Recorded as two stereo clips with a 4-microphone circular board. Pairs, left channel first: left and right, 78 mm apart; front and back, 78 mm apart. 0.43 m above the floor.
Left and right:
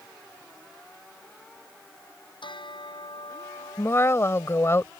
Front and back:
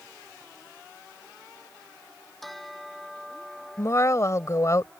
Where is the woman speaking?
40° left.